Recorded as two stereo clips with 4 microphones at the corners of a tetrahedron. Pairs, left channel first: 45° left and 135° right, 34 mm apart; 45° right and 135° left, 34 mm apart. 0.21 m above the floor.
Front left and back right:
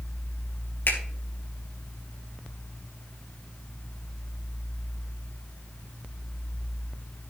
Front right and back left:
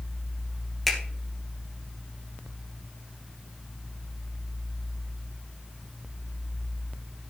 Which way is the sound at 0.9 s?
40° left.